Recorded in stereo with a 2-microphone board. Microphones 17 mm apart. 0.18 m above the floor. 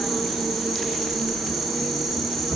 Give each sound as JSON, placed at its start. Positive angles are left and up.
{"t": 0.0, "sound": "an insect", "side_deg": -5, "distance_m": 0.7}